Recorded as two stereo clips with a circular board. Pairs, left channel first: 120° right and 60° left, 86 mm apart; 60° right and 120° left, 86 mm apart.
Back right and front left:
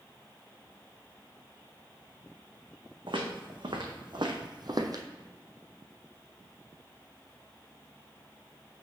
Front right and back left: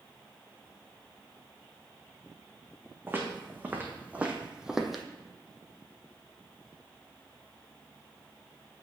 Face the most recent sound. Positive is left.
turn(degrees=30)